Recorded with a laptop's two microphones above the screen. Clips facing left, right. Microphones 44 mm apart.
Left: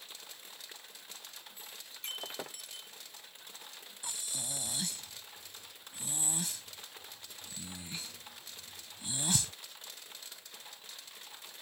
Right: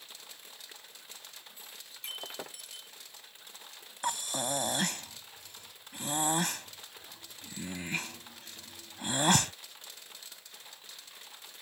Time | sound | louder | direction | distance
1.9 | breaking glass | even | centre (ahead or behind) | ?
4.0 | breathing | right 12 dB | 60° right (ahead or behind) | ?